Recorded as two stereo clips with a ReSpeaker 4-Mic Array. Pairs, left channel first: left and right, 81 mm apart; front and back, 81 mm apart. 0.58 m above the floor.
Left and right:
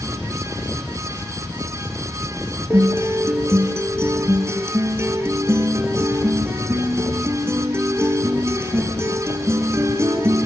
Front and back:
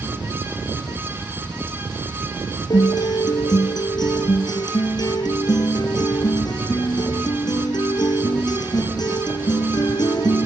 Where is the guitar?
35° right, 3 m.